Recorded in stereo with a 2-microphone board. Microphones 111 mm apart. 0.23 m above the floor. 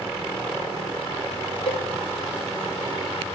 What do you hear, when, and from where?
1.7 s a cowbell: 50° left (ahead or behind), 0.5 m